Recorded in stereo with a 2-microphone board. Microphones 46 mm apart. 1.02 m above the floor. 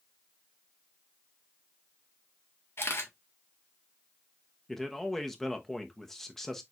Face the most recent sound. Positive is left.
turn(degrees=10)  # may be behind; listen again after turning